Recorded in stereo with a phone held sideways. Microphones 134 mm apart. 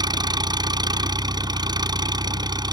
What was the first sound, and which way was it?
An engine running, 30° right (ahead or behind).